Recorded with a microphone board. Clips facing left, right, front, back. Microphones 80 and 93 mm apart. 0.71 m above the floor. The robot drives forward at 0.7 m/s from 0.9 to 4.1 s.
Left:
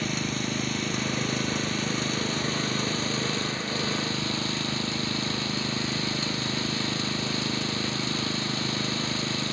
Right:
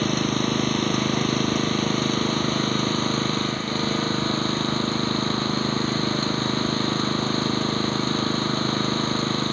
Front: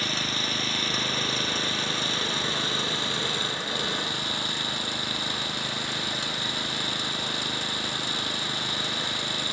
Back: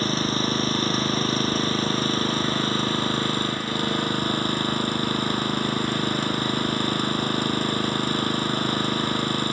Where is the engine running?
125° right; by 9.5 s 135° right.